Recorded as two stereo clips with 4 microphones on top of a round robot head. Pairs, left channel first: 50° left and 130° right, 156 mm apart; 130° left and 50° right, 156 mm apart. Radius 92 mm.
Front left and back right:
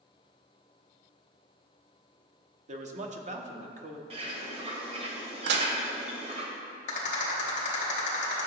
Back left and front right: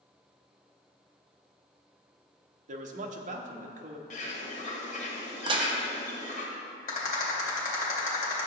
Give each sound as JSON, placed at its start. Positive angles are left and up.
{"t": 2.7, "sound": "a man speaking", "azimuth_deg": -90, "distance_m": 1.0}
{"t": 4.1, "sound": "a bird", "azimuth_deg": 175, "distance_m": 1.5}
{"t": 5.5, "sound": "dishes clattering", "azimuth_deg": -110, "distance_m": 0.6}
{"t": 6.9, "sound": "a rattle", "azimuth_deg": 90, "distance_m": 2.5}